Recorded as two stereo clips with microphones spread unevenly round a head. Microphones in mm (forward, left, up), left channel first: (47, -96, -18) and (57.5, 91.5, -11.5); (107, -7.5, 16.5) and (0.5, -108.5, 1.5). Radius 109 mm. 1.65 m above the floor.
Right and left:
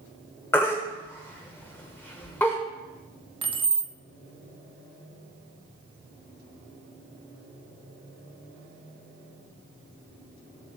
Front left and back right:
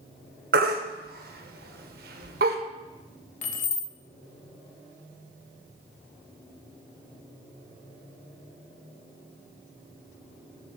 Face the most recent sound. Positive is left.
turn(degrees=30)